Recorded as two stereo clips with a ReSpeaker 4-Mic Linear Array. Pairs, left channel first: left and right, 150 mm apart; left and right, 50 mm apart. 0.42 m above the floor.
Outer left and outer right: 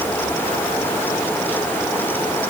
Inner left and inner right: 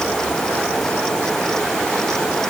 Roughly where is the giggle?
I don't hear a giggle.